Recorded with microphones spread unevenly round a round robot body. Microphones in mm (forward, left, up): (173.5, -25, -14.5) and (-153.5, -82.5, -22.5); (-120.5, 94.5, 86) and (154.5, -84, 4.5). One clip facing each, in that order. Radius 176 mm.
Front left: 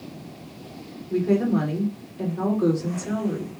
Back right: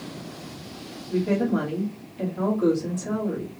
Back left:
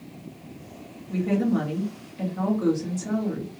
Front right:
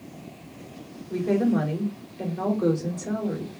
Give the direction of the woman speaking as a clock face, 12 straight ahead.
7 o'clock.